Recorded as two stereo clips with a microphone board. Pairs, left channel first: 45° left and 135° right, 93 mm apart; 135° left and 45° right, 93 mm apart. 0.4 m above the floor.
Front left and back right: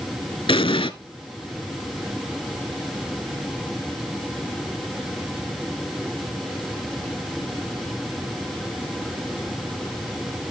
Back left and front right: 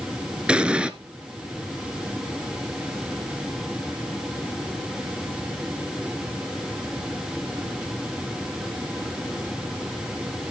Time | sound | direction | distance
0.5 | an explosion | 35° left | 0.9 m